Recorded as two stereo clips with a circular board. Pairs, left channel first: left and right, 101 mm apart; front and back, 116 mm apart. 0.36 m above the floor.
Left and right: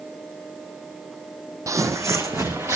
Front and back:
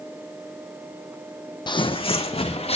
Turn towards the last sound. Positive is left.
turn(degrees=-30)